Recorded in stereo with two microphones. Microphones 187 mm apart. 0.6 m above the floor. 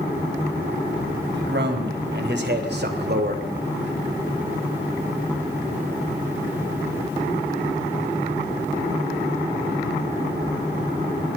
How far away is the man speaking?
About 4 m.